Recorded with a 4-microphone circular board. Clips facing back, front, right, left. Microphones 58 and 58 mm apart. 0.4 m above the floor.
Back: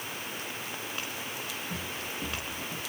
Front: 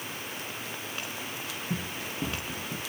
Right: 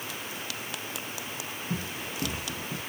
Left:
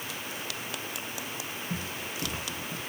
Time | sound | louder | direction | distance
1.7 | running footsteps | front 2 dB, right 3 dB | 35° right | 5 m